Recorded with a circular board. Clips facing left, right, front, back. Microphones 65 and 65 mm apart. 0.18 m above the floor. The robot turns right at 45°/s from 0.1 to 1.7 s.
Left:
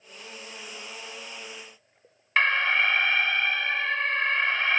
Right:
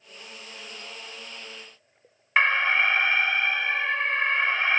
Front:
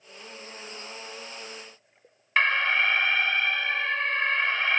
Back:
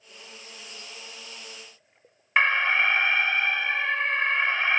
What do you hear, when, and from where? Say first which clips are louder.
2.4 s an alarm: right 1 dB, back 1 dB; 135° right, 0.7 m